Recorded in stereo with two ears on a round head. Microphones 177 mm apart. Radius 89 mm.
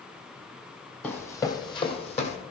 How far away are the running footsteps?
About 1.5 m.